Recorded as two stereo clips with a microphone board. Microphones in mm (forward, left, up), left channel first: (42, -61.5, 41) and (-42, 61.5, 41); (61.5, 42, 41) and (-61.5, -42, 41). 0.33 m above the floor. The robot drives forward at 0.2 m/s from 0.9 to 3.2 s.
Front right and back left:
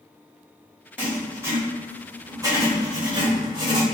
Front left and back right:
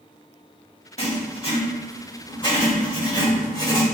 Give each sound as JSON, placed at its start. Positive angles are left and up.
{"t": 1.0, "sound": "writing", "azimuth_deg": 50, "distance_m": 1.3}